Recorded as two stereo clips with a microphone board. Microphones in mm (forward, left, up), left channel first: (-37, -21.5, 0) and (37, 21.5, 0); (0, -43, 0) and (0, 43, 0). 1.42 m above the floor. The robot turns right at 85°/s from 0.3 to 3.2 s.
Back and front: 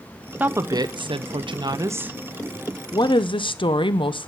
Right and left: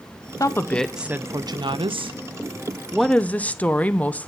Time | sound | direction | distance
0.4 | a woman speaking | 40° right | 0.6 m